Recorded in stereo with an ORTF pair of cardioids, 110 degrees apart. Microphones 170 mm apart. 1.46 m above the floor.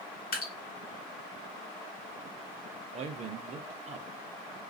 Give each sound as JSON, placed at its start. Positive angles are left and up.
{"t": 0.3, "sound": "dripping", "azimuth_deg": 65, "distance_m": 1.6}
{"t": 2.9, "sound": "a man speaking", "azimuth_deg": -40, "distance_m": 0.5}